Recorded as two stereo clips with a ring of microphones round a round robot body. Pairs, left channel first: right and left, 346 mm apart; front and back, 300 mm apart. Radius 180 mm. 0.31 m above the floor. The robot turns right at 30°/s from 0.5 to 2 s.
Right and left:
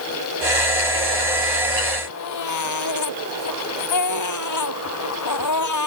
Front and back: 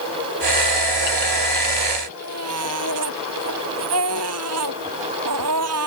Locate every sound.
2.1 s a baby crying: 130° right